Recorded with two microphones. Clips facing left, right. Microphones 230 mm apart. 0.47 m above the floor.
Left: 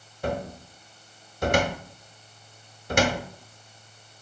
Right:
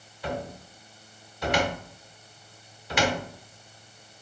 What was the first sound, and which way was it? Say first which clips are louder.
A cupboard door: left 3 dB; 50° left (ahead or behind).